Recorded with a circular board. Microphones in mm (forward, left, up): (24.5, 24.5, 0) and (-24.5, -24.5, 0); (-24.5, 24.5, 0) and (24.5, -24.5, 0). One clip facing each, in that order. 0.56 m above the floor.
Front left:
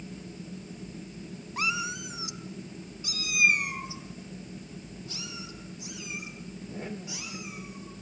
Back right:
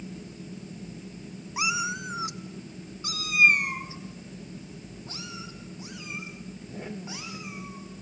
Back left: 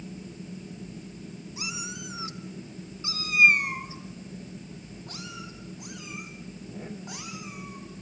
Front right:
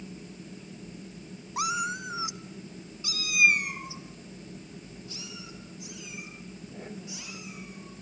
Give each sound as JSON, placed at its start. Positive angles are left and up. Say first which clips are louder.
{"t": 1.6, "sound": "a cat meowing", "louder": "back right 2 dB, front right 10 dB", "azimuth_deg": -50, "distance_m": 0.9}